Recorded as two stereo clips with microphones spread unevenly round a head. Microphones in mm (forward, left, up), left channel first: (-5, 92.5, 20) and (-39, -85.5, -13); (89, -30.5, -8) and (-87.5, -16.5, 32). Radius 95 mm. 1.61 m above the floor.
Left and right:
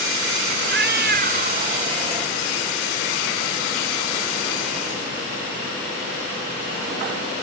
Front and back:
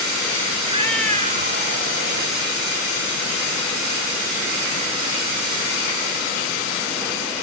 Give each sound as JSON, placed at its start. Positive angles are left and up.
{"t": 0.6, "sound": "a cat meowing", "azimuth_deg": -130}